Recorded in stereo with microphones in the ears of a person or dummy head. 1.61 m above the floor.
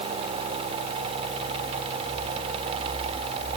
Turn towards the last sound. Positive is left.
No sound to turn to.